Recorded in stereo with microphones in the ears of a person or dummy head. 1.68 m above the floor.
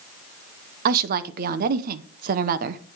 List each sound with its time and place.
0.8 s a woman speaking: 45° right (ahead or behind), 0.7 m